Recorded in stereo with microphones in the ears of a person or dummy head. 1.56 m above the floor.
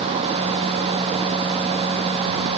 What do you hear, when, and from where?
Only background noise.